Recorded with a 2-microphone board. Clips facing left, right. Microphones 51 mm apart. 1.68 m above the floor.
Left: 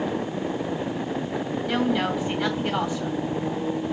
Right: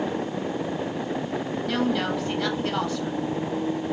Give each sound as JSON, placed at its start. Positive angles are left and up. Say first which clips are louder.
{"t": 1.6, "sound": "a woman speaking", "louder": "left 1 dB", "side_deg": 10, "distance_m": 5.5}